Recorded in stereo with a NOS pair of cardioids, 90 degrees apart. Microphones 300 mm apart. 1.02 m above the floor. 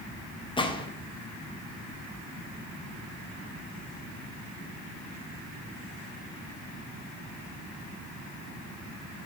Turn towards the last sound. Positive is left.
turn(degrees=15)